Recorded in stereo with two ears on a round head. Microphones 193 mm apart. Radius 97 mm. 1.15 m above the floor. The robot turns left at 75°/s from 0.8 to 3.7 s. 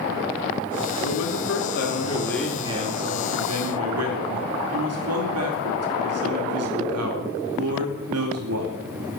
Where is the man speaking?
105° left, 4 m; by 8.8 s 95° right, 4 m.